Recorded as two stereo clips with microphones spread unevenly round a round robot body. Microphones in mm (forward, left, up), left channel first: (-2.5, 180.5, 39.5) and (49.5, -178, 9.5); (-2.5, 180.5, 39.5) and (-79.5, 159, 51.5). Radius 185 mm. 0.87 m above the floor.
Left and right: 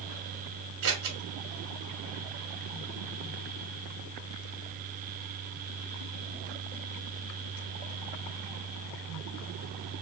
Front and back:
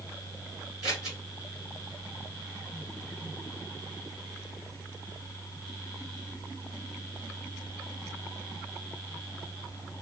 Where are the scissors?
70° right, 1.2 m.